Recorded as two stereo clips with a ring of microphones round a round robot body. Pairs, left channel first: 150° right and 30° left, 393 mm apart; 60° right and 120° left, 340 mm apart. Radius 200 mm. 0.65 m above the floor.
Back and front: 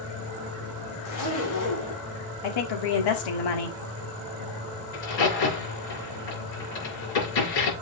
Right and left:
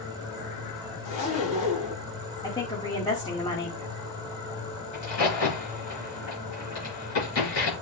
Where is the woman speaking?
140° right, 1.7 m.